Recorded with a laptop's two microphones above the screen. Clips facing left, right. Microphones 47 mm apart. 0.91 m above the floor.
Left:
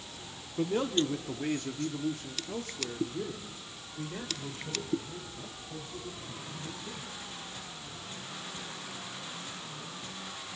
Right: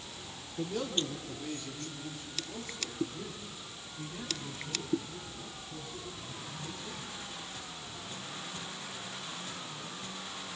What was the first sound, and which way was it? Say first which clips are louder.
A man speaking: left 5 dB; 30° left (ahead or behind).